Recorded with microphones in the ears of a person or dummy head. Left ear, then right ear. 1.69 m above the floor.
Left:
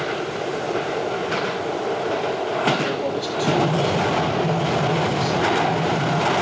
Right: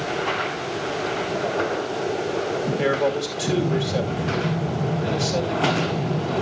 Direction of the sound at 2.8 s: 10° right (ahead or behind).